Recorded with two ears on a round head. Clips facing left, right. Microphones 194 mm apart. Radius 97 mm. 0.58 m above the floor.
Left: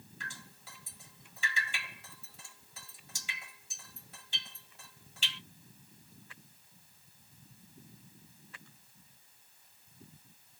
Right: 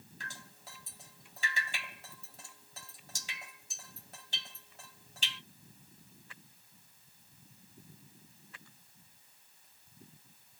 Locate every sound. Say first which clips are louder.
0.2 s dripping: right 1 dB; 35° right (ahead or behind), 1.5 m